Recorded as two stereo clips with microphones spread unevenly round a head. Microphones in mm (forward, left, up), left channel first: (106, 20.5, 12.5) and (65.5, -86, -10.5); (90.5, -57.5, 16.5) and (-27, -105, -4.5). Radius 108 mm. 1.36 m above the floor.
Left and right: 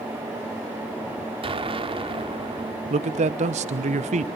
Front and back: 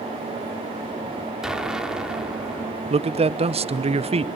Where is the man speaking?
125° right, 0.9 m.